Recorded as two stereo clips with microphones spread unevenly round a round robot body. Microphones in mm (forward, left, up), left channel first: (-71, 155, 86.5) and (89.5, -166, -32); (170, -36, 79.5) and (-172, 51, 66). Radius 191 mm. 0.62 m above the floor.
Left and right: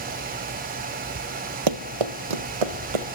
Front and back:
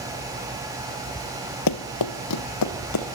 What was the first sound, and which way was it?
Running footsteps, 25° right.